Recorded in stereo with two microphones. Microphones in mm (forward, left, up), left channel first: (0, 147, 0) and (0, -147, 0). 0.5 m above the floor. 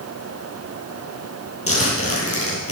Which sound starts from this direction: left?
A zipper, at 1.7 s.